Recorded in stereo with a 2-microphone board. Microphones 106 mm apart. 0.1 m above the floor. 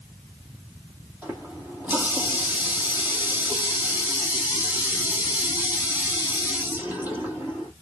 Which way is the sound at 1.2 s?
20° right (ahead or behind).